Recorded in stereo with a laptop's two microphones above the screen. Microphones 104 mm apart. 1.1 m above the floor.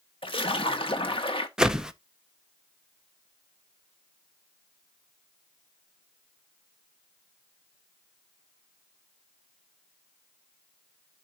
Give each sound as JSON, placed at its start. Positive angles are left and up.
{"t": 0.2, "sound": "a splash", "side_deg": 55, "distance_m": 1.2}
{"t": 1.6, "sound": "a whoosh", "side_deg": -5, "distance_m": 0.5}